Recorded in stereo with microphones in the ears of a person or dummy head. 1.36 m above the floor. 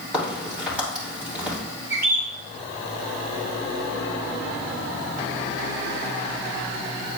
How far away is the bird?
About 2.5 m.